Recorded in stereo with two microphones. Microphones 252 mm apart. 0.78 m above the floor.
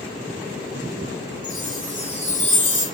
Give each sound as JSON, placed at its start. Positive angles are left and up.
{"t": 1.4, "sound": "a chime", "side_deg": -30, "distance_m": 2.5}